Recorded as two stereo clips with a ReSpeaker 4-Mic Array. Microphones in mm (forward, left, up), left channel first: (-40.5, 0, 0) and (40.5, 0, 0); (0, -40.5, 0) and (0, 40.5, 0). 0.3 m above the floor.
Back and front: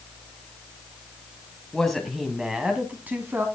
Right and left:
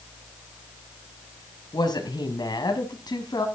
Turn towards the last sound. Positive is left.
turn(degrees=-60)